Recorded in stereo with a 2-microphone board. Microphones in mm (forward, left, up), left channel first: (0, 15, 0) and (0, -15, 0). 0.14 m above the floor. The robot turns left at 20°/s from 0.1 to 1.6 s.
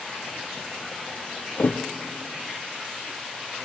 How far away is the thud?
About 0.5 m.